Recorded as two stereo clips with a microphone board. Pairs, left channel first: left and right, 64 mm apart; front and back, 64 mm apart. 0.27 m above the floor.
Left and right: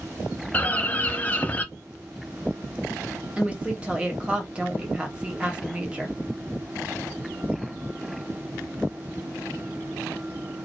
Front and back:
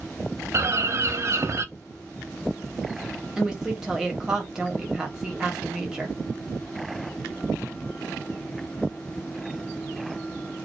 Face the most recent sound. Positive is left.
turn(degrees=-120)